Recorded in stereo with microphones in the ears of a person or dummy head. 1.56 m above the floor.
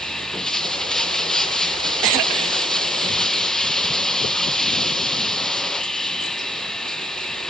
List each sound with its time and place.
0.0 s running water: 5° left (ahead or behind), 1.1 m